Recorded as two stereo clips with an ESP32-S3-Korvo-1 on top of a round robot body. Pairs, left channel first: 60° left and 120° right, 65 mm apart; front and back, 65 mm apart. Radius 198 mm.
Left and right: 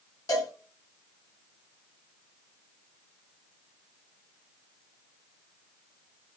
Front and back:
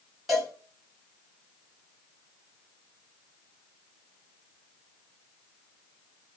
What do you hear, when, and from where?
0.3 s a cowbell: 95° left, 3.5 m